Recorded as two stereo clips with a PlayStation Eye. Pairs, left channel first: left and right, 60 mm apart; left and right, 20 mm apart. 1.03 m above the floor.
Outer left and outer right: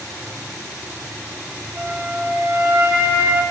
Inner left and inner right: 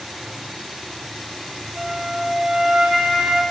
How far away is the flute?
About 1.2 m.